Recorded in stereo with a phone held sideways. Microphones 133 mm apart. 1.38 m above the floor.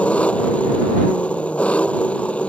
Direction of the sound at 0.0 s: 10° left (ahead or behind).